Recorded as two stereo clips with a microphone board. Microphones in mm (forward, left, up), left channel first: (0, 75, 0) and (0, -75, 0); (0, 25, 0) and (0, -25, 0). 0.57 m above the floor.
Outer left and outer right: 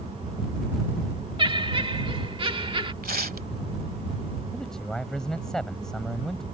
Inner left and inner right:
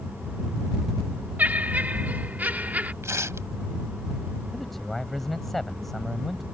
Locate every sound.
1.4 s laughter: 35° right (ahead or behind)
3.0 s tearing paper: 85° right
4.5 s a man speaking: 5° left (ahead or behind)